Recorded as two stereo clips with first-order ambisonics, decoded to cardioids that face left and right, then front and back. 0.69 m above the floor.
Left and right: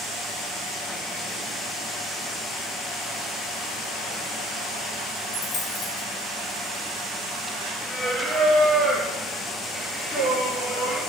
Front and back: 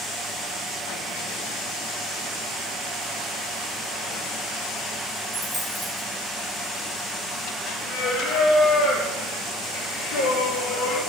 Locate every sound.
5.3 s a dropped coin: 90° left, 3 m
7.9 s singing: 10° left, 3 m